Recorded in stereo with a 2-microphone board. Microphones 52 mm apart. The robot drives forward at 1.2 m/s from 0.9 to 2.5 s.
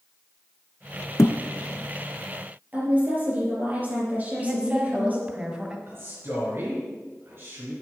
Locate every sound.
1.2 s a thud: 70° left (ahead or behind), 0.6 m; by 1.4 s 55° left (ahead or behind), 0.7 m
2.7 s a woman speaking: 30° right (ahead or behind), 5 m
4.4 s a woman speaking: 20° right (ahead or behind), 1.9 m
5.9 s a man speaking: 40° right (ahead or behind), 4.5 m